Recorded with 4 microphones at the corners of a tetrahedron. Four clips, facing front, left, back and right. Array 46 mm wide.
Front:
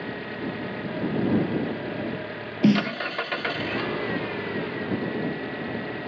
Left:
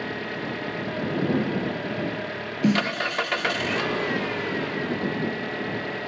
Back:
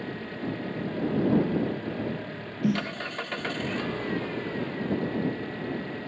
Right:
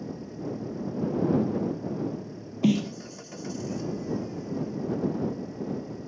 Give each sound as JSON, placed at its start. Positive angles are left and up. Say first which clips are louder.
{"t": 0.0, "sound": "an engine running", "louder": "left 6 dB, front 2 dB", "azimuth_deg": 75}
{"t": 2.6, "sound": "a snare drum", "louder": "left 2 dB, front 7 dB", "azimuth_deg": 0}